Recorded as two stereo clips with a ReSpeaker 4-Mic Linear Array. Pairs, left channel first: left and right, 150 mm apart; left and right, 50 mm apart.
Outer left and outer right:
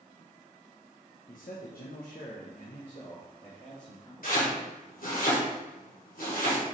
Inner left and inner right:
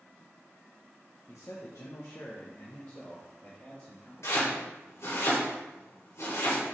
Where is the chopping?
70° left (ahead or behind), 2.5 m.